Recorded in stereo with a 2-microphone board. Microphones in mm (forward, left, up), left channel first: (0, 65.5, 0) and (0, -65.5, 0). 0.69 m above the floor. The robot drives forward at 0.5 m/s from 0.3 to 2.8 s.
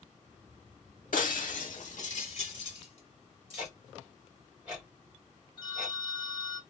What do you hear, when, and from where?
1.1 s breaking glass: 80° left, 0.9 m; by 3.7 s 45° left (ahead or behind), 1.2 m
3.6 s ticking: 5° right (ahead or behind), 1.8 m
5.6 s a phone ringing: 40° left (ahead or behind), 1.1 m